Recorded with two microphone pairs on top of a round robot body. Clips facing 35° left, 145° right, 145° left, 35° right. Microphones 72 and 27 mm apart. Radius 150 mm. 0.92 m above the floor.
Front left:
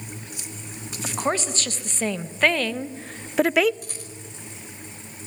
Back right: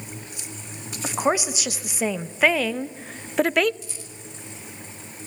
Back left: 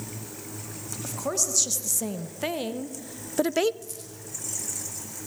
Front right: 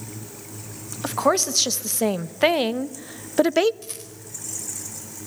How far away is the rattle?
About 4.5 m.